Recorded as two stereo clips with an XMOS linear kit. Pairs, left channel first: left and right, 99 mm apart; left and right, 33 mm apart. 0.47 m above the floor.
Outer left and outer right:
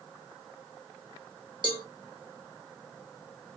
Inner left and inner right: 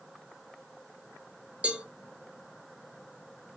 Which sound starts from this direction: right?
A cowbell, at 1.6 s.